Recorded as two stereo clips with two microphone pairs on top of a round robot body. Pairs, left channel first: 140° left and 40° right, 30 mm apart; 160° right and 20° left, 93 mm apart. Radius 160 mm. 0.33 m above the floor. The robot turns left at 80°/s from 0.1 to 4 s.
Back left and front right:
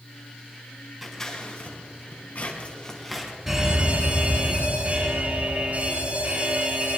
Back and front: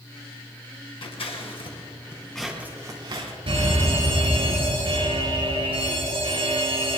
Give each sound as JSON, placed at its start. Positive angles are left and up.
{"t": 1.0, "sound": "scissors", "azimuth_deg": -135, "distance_m": 3.0}
{"t": 3.5, "sound": "an alarm", "azimuth_deg": 45, "distance_m": 5.5}